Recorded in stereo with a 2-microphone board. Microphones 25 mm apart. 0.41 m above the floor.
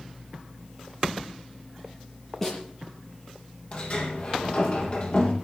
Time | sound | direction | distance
2.4 | a snare drum | 15° left (ahead or behind) | 5.5 m
3.7 | a sliding door | 40° left (ahead or behind) | 3 m